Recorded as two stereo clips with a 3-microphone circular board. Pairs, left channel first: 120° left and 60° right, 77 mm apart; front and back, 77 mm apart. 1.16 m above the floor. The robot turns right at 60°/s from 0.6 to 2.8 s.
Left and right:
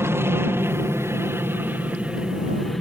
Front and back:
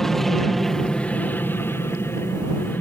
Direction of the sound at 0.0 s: 80° right.